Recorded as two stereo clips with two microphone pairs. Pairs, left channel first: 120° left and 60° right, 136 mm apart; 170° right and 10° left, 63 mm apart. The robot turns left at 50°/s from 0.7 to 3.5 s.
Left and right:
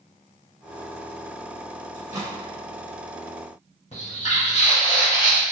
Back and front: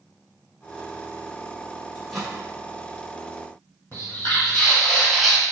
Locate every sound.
1.9 s a microwave: 70° right, 1.1 m; by 2.3 s 90° right, 1.1 m
3.9 s footsteps: 150° left, 1.6 m; by 5.4 s 85° left, 1.0 m